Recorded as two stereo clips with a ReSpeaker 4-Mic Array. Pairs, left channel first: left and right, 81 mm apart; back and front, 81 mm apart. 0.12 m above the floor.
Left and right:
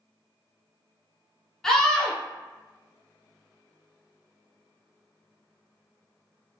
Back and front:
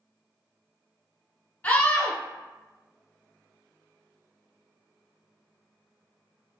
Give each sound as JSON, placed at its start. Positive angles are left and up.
{"t": 1.6, "sound": "a scream", "azimuth_deg": 160, "distance_m": 1.1}